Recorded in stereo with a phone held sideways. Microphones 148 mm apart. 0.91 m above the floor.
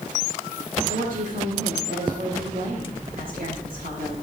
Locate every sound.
0.9 s a woman speaking: 70° right (ahead or behind), 2.5 m